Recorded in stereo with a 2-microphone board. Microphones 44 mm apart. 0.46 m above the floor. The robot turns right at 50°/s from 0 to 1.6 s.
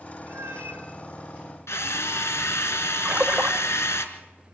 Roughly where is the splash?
Right.